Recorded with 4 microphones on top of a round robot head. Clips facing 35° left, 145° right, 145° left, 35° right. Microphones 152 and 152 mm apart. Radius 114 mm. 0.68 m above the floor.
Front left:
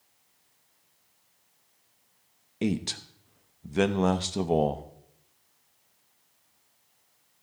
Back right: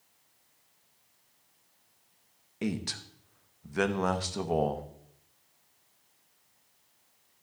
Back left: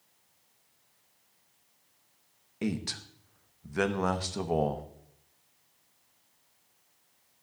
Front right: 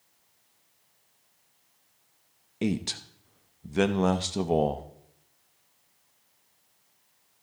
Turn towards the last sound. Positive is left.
turn(degrees=0)